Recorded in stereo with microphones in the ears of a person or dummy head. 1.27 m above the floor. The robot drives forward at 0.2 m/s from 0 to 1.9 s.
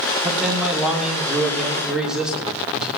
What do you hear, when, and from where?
0.2 s a man speaking: centre (ahead or behind), 3 m